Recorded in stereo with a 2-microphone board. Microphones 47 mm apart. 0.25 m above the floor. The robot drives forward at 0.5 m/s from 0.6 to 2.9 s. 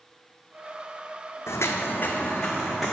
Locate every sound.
1.5 s footsteps: 75° left (ahead or behind), 0.8 m; by 2.9 s centre (ahead or behind), 1.4 m